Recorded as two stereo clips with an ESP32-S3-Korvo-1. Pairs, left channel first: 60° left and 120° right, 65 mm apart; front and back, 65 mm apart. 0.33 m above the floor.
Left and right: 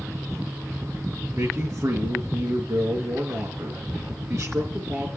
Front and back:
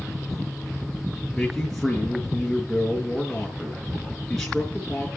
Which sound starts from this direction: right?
A man speaking, at 1.3 s.